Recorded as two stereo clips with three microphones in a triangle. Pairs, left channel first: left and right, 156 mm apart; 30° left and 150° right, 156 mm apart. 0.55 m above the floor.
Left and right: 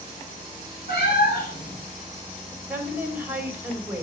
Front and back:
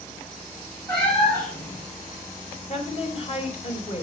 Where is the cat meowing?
105° left, 5 m.